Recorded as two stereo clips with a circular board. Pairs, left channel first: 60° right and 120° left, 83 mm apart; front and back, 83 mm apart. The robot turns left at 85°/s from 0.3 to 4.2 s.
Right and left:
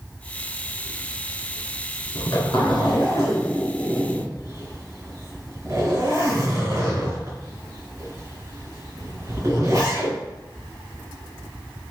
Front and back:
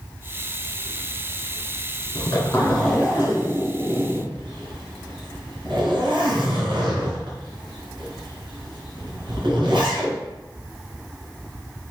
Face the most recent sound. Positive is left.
turn(degrees=165)